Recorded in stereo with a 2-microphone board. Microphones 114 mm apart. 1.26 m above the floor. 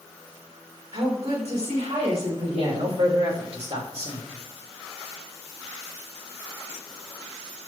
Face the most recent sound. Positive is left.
turn(degrees=-60)  # may be behind; listen again after turning